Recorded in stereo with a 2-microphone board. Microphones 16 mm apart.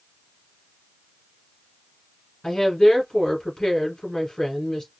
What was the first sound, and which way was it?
A woman speaking, 30° left (ahead or behind).